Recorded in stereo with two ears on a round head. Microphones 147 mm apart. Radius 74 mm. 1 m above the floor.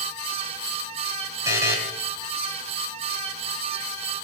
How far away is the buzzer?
About 3.5 m.